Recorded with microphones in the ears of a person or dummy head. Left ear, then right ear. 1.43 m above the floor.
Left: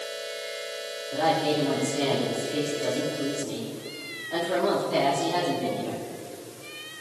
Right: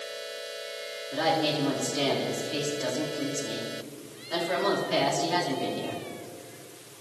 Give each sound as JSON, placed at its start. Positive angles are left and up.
{"t": 1.1, "sound": "a woman speaking", "side_deg": -70, "distance_m": 3.5}